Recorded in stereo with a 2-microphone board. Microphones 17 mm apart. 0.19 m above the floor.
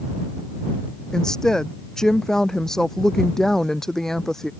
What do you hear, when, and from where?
1.1 s a woman speaking: 40° left (ahead or behind); by 4.5 s 25° left (ahead or behind)